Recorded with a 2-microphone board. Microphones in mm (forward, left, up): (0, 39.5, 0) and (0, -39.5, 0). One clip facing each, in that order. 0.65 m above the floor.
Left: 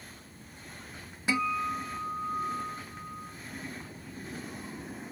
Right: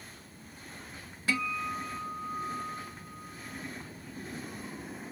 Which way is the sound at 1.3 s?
20° left (ahead or behind).